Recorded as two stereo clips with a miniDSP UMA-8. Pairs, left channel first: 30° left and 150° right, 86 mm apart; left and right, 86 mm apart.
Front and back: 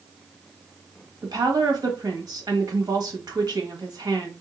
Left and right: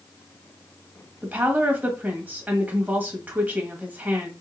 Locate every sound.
1.2 s a woman speaking: 155° right, 1.4 m